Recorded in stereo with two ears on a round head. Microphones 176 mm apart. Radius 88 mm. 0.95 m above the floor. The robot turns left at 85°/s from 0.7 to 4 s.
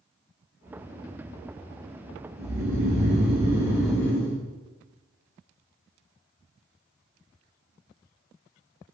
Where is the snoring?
55° right, 2 m; by 4.4 s 170° left, 2 m.